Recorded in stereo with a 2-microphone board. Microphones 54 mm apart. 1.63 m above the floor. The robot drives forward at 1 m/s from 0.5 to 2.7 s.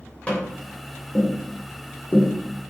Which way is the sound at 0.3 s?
25° left (ahead or behind).